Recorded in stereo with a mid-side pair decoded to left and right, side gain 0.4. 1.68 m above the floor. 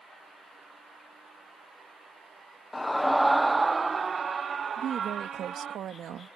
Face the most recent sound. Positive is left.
turn(degrees=-70)